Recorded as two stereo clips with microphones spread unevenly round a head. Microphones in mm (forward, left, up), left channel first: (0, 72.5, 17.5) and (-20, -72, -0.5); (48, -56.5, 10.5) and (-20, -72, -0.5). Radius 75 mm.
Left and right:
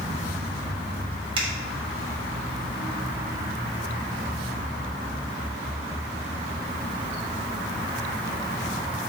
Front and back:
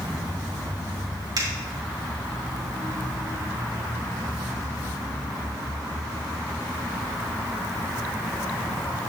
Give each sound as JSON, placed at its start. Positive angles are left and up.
{"t": 1.4, "sound": "a finger snap", "azimuth_deg": -155, "distance_m": 2.5}